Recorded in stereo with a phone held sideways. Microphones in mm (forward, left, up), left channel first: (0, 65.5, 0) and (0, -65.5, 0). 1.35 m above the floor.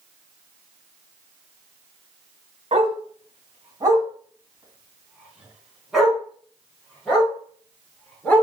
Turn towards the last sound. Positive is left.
turn(degrees=10)  # may be behind; listen again after turning